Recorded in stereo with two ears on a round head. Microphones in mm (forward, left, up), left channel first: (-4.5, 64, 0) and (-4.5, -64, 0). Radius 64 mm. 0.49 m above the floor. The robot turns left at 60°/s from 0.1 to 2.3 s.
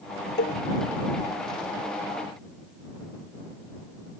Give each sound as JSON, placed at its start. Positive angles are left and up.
{"t": 0.4, "sound": "a cowbell", "side_deg": 85}